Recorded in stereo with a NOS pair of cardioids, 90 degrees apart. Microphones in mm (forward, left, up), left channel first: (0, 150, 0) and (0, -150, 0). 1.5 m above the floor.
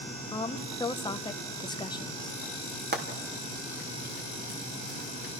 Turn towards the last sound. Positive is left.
turn(degrees=-35)